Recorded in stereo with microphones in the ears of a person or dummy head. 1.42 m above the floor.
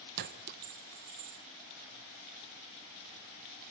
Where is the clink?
55° right (ahead or behind), 0.8 m.